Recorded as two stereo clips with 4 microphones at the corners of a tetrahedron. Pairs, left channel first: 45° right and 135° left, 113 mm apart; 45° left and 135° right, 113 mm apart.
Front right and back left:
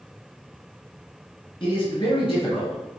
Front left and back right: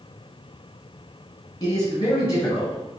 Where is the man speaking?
5° right, 3 m; by 2.8 s 10° right, 4 m.